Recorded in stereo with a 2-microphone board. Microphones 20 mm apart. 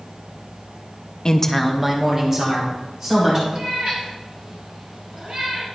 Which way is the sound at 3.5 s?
50° right (ahead or behind).